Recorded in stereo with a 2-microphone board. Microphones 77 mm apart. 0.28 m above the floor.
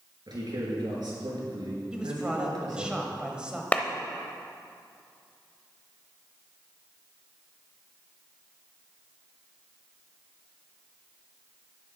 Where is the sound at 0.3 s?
65° right (ahead or behind), 3.5 m.